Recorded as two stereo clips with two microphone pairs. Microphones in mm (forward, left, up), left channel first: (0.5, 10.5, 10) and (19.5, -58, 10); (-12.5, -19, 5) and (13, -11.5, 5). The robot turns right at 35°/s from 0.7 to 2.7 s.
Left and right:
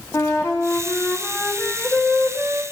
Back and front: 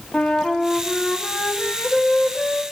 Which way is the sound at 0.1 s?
155° left.